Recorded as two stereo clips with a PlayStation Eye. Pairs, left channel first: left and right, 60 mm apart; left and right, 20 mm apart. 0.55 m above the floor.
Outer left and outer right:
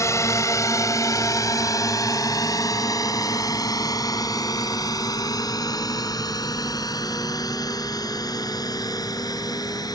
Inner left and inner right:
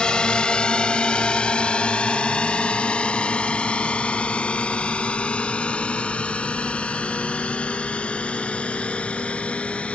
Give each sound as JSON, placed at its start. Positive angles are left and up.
{"t": 0.0, "sound": "a drone", "side_deg": 55}